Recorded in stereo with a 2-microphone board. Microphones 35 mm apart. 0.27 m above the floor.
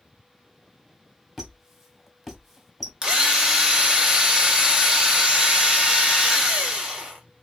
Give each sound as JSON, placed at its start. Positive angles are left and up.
{"t": 1.4, "sound": "a squeak", "side_deg": -5, "distance_m": 0.7}
{"t": 3.0, "sound": "a drill", "side_deg": -20, "distance_m": 0.8}